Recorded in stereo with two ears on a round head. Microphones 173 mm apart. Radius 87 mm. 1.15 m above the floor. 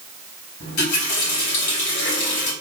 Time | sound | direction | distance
0.6 | a running tap | 60° left (ahead or behind) | 4.5 m